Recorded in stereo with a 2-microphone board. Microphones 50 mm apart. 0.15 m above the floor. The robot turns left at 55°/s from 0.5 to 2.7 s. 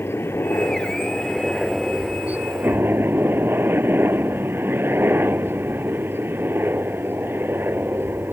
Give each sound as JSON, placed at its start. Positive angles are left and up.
{"t": 0.0, "sound": "a helicopter", "azimuth_deg": 65}